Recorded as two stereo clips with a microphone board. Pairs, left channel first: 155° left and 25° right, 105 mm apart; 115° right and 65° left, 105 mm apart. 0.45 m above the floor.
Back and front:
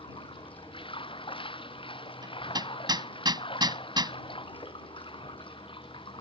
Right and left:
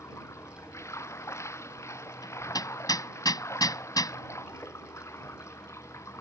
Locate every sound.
0.0 s running water: 175° right
2.2 s hammering: 65° right